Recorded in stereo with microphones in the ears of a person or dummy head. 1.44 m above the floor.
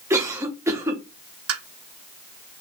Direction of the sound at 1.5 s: 90° right.